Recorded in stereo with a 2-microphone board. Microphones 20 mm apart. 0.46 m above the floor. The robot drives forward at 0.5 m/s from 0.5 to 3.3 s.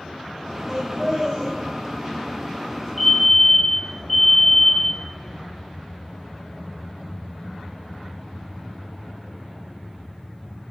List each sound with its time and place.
0.7 s laughter: 25° right (ahead or behind), 2.5 m; by 1.5 s 20° right (ahead or behind), 3 m
3.0 s a fire alarm: 5° left (ahead or behind), 3 m